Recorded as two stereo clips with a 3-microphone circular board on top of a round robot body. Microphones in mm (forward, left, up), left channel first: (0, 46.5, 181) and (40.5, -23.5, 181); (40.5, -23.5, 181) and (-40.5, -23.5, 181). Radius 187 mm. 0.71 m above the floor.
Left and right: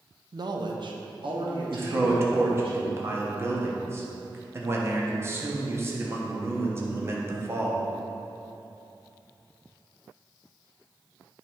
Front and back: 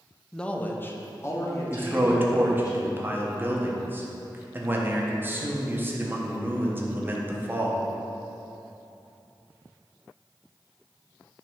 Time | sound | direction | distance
0.3 | a man speaking | 85° right | 0.7 m
1.7 | a man speaking | 115° right | 1.3 m